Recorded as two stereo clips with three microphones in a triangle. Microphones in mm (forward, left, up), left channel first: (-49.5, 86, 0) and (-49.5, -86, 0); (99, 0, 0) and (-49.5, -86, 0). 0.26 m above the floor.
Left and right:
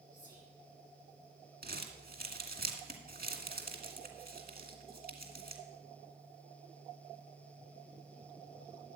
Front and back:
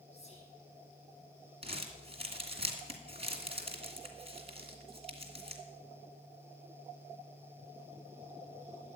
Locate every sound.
0.1 s whispering: 20° right, 9 m
1.6 s crumpling: 100° right, 2 m